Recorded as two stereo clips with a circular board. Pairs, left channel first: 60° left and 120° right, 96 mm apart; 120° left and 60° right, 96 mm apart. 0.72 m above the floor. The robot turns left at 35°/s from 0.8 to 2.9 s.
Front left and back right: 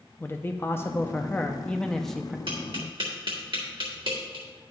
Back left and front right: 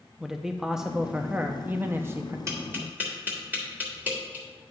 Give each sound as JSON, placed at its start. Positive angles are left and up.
{"t": 0.2, "sound": "a man speaking", "azimuth_deg": 20, "distance_m": 0.5}
{"t": 2.5, "sound": "tapping", "azimuth_deg": -110, "distance_m": 2.5}